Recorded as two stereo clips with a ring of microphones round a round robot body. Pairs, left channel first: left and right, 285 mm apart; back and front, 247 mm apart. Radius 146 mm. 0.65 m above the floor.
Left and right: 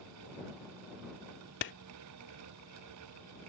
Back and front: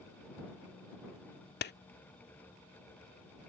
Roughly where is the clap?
Behind left.